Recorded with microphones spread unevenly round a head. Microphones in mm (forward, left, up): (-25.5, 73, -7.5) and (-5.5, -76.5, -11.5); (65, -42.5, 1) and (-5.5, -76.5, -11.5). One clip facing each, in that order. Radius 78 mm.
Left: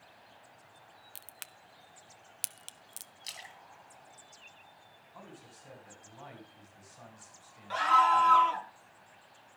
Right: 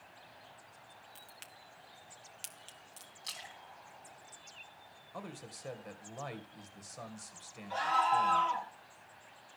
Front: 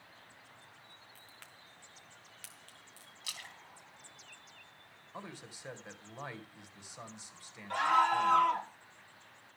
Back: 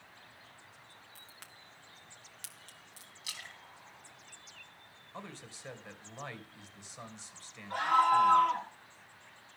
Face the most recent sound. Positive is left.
turn(degrees=65)